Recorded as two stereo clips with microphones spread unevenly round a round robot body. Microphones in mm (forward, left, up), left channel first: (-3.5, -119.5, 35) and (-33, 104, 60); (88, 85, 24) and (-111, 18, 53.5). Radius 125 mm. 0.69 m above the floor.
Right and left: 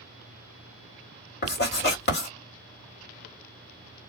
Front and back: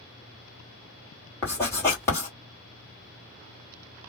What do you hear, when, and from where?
1.4 s writing: 55° right, 1.9 m